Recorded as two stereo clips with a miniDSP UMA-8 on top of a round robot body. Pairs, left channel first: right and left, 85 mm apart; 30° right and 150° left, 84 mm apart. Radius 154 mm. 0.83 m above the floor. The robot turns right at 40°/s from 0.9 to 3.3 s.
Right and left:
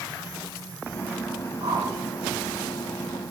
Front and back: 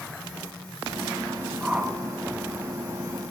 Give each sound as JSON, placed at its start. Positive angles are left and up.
{"t": 1.6, "sound": "a whoosh", "azimuth_deg": 60, "distance_m": 1.4}